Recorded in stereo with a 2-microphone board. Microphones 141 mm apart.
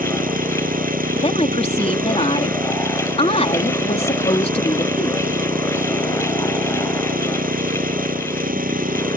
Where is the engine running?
90° right.